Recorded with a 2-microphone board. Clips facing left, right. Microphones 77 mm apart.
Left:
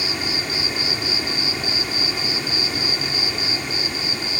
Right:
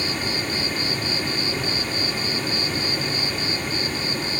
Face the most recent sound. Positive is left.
turn(degrees=10)  # may be behind; listen again after turning